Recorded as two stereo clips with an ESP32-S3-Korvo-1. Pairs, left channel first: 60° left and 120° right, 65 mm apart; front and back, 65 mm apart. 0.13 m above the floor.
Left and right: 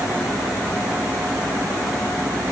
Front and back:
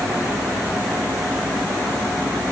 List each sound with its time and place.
Only background noise.